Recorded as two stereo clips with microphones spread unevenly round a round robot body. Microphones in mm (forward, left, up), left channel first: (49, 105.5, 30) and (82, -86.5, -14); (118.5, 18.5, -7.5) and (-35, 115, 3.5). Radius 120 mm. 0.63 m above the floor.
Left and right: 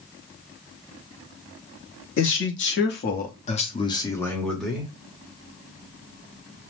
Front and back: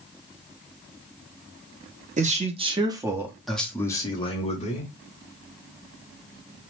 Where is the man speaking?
110° left, 1.1 m; by 4.9 s 10° right, 1.1 m.